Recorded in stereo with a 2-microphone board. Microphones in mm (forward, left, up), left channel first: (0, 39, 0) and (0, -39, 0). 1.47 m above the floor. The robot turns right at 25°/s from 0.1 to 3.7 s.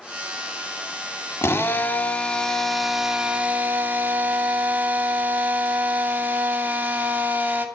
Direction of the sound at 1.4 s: 150° left.